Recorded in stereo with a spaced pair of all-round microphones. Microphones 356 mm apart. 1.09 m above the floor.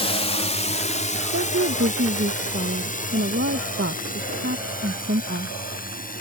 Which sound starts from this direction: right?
A woman speaking, at 1.3 s.